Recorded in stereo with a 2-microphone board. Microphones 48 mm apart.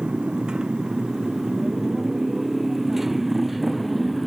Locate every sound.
0.0 s a motorcycle: 20° right (ahead or behind); by 4.3 s centre (ahead or behind)